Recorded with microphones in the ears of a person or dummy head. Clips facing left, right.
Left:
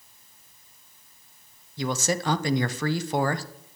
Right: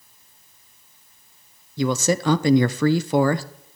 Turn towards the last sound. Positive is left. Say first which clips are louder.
# right 6 dB
turn(degrees=-65)  # may be behind; listen again after turning